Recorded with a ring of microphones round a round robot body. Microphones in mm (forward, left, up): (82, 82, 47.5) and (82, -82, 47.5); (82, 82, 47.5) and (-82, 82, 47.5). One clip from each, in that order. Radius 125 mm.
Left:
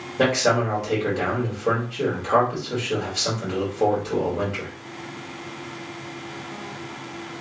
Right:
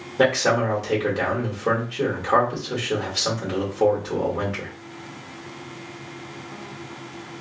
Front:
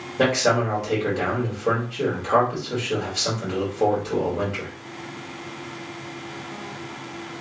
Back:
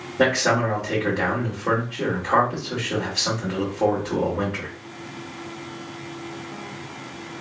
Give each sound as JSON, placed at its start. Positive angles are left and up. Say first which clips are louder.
{"t": 0.2, "sound": "a man speaking", "louder": "right 1 dB, even", "azimuth_deg": -40, "distance_m": 1.4}